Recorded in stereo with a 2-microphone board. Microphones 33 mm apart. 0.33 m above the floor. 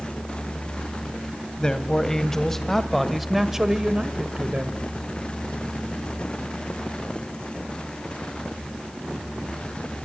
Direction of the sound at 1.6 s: 20° left (ahead or behind).